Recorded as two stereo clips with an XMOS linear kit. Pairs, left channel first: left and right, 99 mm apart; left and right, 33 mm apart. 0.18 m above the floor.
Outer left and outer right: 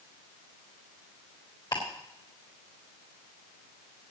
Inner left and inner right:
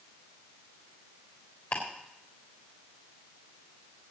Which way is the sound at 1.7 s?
50° left (ahead or behind).